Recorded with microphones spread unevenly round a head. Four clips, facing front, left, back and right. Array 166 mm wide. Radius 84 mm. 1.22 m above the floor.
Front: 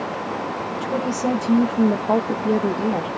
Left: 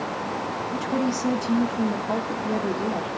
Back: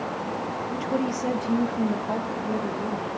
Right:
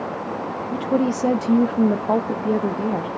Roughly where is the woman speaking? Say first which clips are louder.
Right 5 dB, front 1 dB; right.